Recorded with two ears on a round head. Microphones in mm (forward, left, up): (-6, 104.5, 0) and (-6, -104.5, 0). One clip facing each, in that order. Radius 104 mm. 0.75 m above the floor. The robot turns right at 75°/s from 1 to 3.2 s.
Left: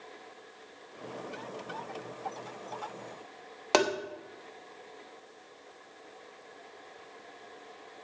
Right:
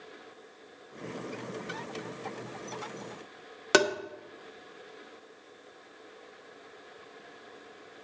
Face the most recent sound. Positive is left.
turn(degrees=-20)  # may be behind; listen again after turning